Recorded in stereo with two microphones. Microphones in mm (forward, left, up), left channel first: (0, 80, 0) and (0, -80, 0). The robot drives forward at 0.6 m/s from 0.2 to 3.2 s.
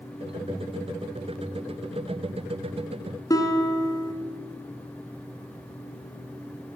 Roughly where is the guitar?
Left.